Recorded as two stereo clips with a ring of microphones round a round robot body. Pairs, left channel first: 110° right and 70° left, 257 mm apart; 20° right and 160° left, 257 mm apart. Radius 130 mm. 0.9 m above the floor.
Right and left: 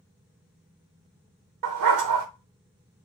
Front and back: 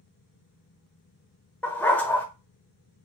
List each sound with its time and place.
1.6 s a dog barking: 60° left, 0.9 m